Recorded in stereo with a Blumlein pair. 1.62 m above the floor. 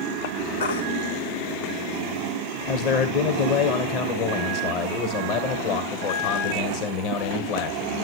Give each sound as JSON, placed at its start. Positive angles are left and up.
{"t": 0.6, "sound": "a baby crying", "azimuth_deg": 65, "distance_m": 2.5}
{"t": 2.7, "sound": "a man speaking", "azimuth_deg": 40, "distance_m": 1.1}